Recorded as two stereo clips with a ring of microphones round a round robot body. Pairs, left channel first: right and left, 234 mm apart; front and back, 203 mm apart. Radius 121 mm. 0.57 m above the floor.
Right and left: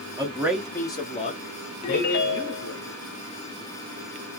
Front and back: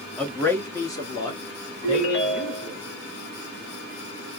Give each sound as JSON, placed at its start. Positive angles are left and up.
{"t": 0.2, "sound": "a man speaking", "azimuth_deg": 75, "distance_m": 1.2}
{"t": 1.8, "sound": "a ringtone", "azimuth_deg": -35, "distance_m": 1.5}